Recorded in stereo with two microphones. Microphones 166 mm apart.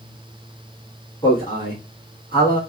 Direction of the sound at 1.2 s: 30° left (ahead or behind).